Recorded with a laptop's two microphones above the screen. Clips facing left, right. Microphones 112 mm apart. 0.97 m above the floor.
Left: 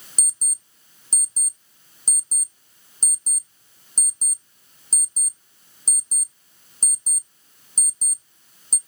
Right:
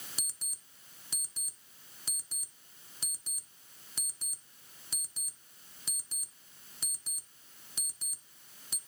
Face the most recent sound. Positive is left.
turn(degrees=40)  # may be behind; listen again after turning